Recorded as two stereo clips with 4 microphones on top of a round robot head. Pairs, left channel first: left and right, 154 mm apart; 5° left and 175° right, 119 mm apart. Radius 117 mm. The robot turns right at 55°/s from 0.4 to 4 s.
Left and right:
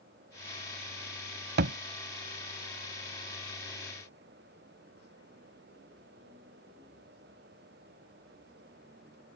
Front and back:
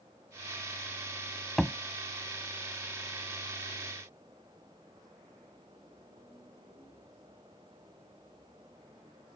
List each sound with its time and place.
1.6 s a thud: 85° right; by 1.8 s 75° right